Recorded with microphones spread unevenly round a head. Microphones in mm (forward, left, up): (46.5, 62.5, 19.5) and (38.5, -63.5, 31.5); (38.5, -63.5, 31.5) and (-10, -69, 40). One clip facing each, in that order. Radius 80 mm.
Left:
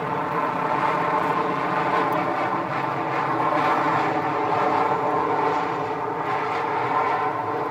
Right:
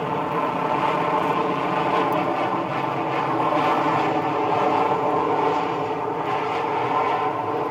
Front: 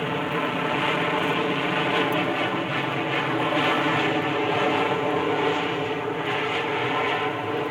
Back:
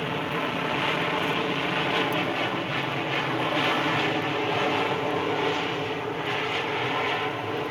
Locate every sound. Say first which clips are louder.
0.0 s an aircraft: right 1 dB, front 3 dB; 30° right